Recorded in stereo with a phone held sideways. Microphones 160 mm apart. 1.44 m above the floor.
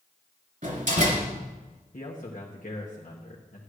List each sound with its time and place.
0.6 s a door slam: 55° right (ahead or behind), 2.5 m
1.9 s a man speaking: 60° left (ahead or behind), 1.5 m